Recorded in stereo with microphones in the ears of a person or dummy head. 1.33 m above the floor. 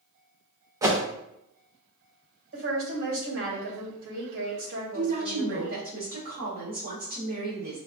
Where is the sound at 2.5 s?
75° right (ahead or behind), 2.0 m.